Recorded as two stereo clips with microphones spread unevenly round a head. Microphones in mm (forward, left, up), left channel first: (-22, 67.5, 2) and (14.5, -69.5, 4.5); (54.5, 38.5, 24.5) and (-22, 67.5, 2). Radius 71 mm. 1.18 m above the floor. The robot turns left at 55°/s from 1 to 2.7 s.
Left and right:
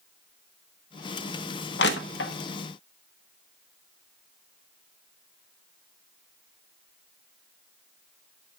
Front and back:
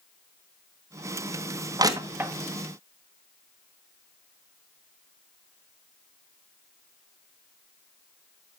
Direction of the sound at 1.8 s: 120° left.